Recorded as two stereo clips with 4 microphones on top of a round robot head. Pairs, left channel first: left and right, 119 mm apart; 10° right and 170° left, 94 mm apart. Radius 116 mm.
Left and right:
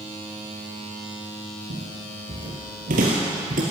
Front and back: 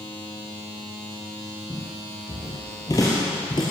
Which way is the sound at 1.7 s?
80° right.